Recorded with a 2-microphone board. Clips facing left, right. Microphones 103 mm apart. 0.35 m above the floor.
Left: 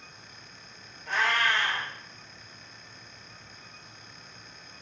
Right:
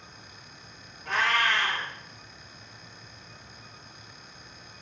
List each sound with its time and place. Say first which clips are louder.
1.1 s a cat meowing: right 1 dB; 75° right (ahead or behind), 1.4 m